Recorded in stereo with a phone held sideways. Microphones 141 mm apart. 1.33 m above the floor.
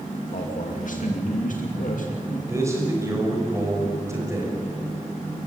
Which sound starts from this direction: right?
A man speaking, at 2.5 s.